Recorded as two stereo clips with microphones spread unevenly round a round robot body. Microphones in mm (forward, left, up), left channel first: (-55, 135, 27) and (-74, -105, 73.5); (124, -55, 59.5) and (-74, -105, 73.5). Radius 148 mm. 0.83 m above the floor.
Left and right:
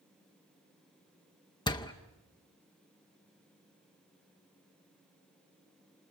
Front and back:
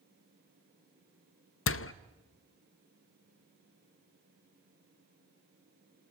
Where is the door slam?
15° left, 0.6 m.